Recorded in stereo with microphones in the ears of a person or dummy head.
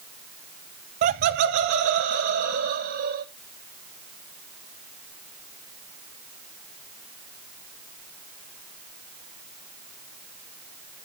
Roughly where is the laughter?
Right.